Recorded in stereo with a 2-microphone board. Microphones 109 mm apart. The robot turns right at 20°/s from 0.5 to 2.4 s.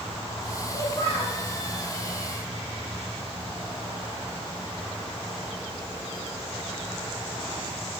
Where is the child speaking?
45° left (ahead or behind), 1.9 m; by 1.4 s 60° left (ahead or behind), 1.9 m.